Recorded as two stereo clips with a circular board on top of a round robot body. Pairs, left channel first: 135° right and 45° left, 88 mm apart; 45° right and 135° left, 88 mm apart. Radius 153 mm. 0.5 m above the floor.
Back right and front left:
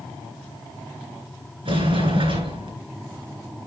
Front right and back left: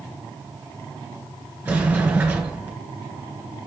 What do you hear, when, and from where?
1.6 s a sliding door: 60° left, 3.5 m